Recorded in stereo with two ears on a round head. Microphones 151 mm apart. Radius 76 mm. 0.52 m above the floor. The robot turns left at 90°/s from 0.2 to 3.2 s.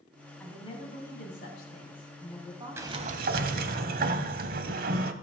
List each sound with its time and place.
0.4 s a woman speaking: 170° left, 3.5 m; by 3.8 s 80° right, 3.5 m
2.8 s a sliding door: 15° right, 0.8 m; by 5.1 s 55° right, 0.8 m